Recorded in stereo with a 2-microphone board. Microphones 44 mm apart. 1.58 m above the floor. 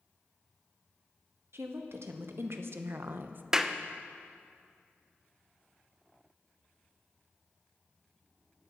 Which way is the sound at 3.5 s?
10° right (ahead or behind).